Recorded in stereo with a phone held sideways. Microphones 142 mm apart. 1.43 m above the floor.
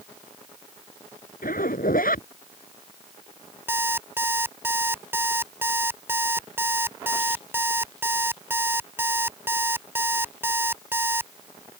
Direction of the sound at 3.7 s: 15° right (ahead or behind).